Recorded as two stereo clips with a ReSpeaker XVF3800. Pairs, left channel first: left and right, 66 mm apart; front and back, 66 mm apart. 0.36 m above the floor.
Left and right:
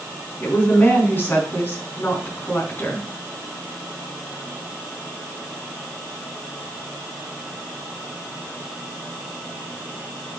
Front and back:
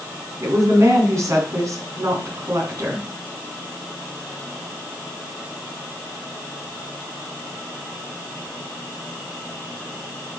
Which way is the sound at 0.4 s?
145° left.